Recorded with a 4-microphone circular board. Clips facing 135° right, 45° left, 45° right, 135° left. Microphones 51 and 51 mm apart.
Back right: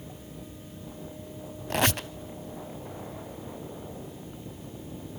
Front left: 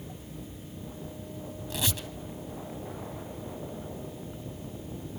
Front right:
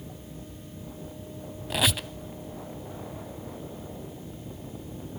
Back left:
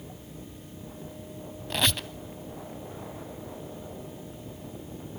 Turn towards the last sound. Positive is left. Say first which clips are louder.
# back right 8 dB, front right 1 dB
turn(degrees=-125)